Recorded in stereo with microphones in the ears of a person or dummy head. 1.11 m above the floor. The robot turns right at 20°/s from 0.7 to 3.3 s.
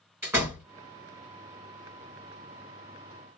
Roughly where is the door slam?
Centre.